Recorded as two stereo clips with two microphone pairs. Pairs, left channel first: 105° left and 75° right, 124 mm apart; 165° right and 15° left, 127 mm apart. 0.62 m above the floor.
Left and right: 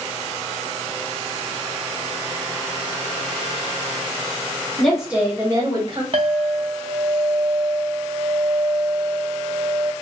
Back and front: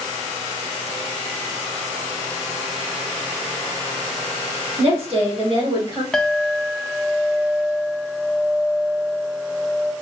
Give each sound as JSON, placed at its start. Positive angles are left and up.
{"t": 4.8, "sound": "a woman speaking", "azimuth_deg": 25, "distance_m": 1.6}
{"t": 6.1, "sound": "a clink", "azimuth_deg": -85, "distance_m": 0.6}